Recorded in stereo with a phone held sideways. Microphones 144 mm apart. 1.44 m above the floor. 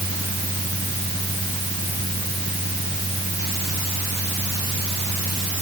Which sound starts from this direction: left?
A fan, at 0.0 s.